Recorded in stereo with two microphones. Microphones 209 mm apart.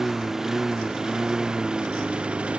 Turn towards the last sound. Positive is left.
turn(degrees=-5)  # may be behind; listen again after turning